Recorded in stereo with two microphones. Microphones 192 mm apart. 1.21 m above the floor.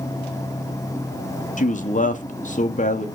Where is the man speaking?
40° left (ahead or behind), 0.7 m.